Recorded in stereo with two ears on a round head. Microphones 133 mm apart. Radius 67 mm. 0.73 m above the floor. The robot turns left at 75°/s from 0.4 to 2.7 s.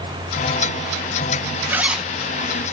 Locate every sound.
1.7 s a zipper: 15° right (ahead or behind), 1.2 m; by 2.1 s centre (ahead or behind), 1.2 m